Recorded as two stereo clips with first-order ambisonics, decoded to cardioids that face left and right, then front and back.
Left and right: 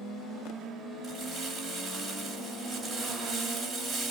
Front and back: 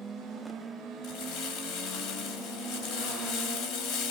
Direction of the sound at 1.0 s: Straight ahead.